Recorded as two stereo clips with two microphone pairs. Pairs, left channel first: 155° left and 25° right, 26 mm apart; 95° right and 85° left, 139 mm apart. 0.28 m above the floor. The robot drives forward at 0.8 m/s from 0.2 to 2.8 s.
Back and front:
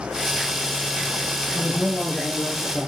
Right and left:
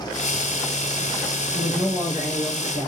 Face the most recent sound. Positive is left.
turn(degrees=160)